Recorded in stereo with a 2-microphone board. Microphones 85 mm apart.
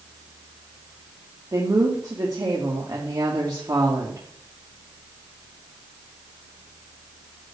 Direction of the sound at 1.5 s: 50° right (ahead or behind).